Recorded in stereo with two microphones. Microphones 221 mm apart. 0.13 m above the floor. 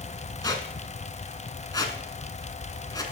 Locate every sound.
0.4 s a squeak: 15° left (ahead or behind), 0.9 m